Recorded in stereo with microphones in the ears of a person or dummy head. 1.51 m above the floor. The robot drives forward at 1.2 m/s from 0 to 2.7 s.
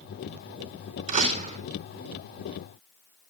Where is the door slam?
40° right (ahead or behind), 3 m; by 1.6 s 35° right (ahead or behind), 3.5 m.